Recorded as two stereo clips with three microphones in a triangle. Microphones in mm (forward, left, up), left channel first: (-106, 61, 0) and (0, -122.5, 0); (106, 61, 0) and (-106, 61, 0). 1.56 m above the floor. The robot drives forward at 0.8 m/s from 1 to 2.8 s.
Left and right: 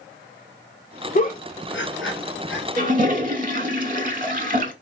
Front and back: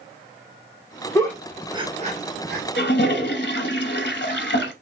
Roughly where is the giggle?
Left.